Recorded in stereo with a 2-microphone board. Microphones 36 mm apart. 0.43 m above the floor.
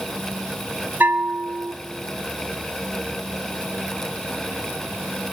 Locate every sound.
1.0 s a bell: 60° right (ahead or behind), 0.5 m